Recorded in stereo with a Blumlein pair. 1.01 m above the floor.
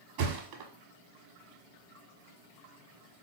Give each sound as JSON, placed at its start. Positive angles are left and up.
{"t": 0.2, "sound": "a thud", "azimuth_deg": -45, "distance_m": 1.1}